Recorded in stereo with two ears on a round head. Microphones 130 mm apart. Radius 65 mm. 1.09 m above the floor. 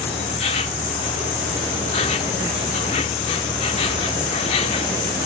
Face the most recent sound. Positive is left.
turn(degrees=40)  # may be behind; listen again after turning